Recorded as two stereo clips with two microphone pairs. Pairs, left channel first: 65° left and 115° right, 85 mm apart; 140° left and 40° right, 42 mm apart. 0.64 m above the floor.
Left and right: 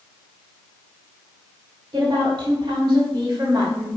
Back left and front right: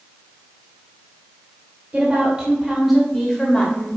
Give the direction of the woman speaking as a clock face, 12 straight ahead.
3 o'clock.